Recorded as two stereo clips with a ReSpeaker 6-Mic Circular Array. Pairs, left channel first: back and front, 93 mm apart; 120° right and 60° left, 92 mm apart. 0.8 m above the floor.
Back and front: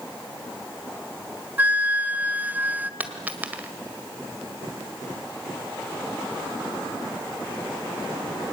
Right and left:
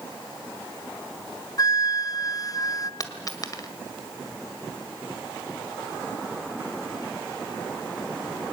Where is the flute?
70° right, 0.8 m.